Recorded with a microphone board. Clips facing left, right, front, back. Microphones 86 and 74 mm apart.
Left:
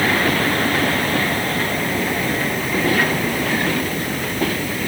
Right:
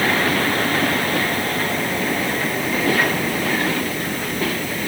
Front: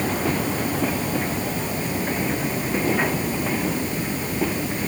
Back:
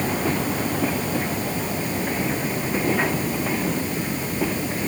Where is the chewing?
No chewing in this recording.